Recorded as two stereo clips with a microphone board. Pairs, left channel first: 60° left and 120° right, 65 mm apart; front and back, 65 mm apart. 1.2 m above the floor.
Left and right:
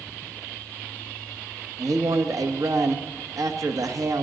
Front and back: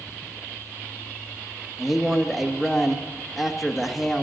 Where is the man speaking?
90° right, 1.2 m.